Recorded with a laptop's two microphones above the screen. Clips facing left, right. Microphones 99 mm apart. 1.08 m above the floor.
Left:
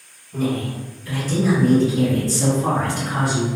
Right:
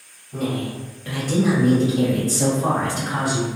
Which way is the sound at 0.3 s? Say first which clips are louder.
Left 2 dB; 60° right (ahead or behind).